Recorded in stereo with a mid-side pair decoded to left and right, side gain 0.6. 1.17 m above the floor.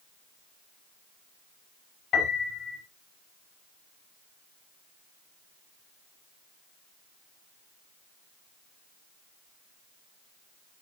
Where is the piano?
45° left, 5.5 m.